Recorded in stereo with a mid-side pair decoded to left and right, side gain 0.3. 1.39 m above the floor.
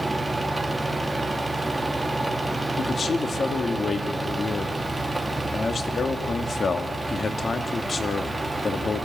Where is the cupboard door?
No cupboard door in this recording.